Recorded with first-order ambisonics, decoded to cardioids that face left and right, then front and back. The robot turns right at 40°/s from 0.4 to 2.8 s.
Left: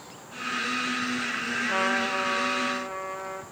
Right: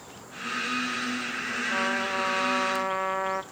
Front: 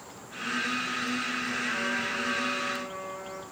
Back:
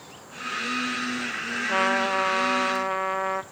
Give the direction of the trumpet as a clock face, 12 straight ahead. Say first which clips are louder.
Left 2 dB, back 12 dB; 7 o'clock.